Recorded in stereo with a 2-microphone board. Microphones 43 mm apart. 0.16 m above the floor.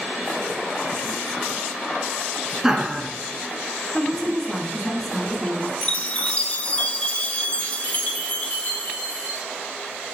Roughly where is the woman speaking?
Centre.